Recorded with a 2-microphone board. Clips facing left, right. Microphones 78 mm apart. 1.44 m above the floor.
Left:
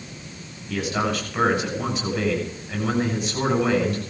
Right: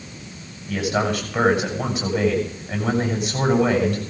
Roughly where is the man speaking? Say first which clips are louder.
Right 2 dB; right.